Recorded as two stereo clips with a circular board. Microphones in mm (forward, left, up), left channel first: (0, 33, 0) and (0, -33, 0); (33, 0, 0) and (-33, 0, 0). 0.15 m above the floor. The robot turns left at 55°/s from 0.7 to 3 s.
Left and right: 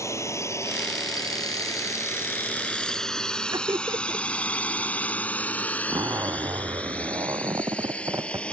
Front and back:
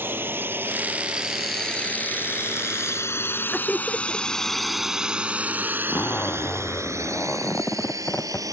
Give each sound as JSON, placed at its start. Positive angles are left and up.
{"t": 0.0, "sound": "a drone", "azimuth_deg": 125}
{"t": 3.5, "sound": "laughter", "azimuth_deg": -80}
{"t": 5.9, "sound": "a zipper", "azimuth_deg": -60}